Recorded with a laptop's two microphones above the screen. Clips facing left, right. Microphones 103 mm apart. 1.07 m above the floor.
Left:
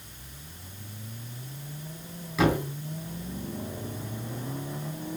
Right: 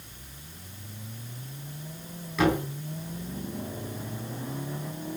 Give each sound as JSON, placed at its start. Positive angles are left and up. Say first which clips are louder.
{"t": 2.4, "sound": "a thud", "louder": "even", "side_deg": 5, "distance_m": 3.0}